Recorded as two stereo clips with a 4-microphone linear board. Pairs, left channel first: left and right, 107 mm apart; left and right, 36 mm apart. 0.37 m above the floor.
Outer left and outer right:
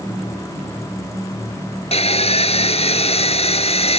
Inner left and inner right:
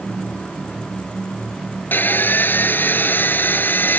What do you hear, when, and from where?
1.9 s sawing: 70° left (ahead or behind)